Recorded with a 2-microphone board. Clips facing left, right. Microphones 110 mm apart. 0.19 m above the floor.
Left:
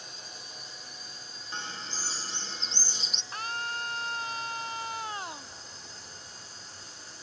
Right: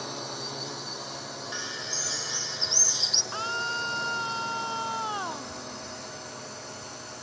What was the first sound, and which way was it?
A drone, 80° right.